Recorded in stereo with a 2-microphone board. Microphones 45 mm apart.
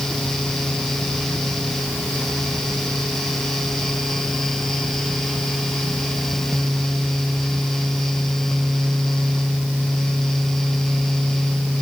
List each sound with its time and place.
Only background noise.